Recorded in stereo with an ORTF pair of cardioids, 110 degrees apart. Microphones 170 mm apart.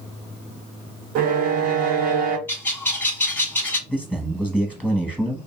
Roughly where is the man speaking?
Ahead.